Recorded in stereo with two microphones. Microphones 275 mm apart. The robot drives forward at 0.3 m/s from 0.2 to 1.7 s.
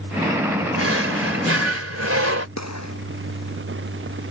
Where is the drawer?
55° right (ahead or behind); by 2.5 s 60° right (ahead or behind).